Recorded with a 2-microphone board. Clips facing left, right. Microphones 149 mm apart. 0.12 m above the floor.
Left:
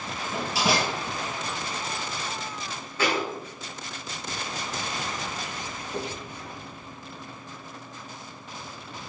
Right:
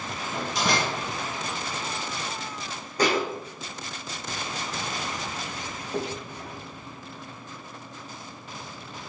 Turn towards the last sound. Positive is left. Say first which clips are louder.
# right 4 dB
turn(degrees=-25)  # may be behind; listen again after turning